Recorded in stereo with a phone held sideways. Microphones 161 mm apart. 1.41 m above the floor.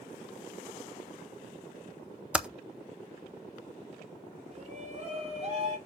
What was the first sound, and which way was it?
Typing on a keyboard, 5° right (ahead or behind).